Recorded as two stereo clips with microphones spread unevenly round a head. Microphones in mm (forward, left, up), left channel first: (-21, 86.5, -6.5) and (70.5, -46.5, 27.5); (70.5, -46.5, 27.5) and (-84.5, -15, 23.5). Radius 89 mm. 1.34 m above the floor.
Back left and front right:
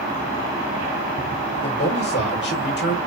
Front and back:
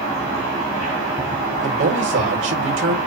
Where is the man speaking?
155° left, 4.5 m.